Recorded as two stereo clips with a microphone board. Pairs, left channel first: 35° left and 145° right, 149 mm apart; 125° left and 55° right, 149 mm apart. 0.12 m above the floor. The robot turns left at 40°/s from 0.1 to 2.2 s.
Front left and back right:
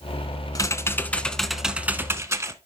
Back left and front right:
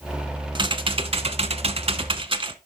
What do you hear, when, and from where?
0.6 s typing on a keyboard: 15° right, 0.7 m; by 2.6 s 85° right, 0.7 m